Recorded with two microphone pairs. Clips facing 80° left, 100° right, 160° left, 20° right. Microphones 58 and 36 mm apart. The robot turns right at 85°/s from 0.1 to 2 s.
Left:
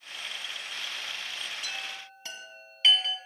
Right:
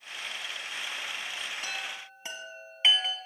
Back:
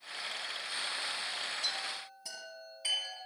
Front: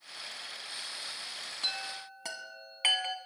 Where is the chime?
65° right, 2.5 m; by 3.1 s 35° right, 2.5 m.